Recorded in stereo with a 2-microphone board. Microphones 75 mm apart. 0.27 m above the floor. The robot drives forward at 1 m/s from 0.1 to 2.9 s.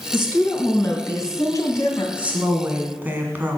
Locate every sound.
0.1 s a woman speaking: 35° left (ahead or behind), 3 m; by 2.1 s 50° left (ahead or behind), 2 m
2.2 s a woman speaking: 15° right (ahead or behind), 2.5 m; by 3.6 s 25° right (ahead or behind), 1.8 m